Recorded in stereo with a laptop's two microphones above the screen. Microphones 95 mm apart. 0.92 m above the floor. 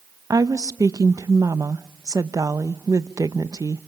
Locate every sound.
0.3 s a woman speaking: 40° right (ahead or behind), 0.7 m